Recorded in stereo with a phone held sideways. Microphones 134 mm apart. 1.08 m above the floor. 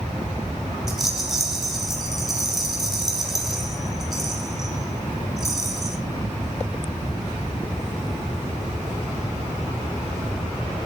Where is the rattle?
Centre (ahead or behind), 4.5 m.